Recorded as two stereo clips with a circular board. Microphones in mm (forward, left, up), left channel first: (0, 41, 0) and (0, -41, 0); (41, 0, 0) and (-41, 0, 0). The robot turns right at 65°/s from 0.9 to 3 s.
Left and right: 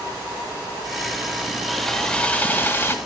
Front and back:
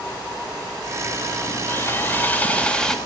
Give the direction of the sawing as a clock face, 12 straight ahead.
12 o'clock.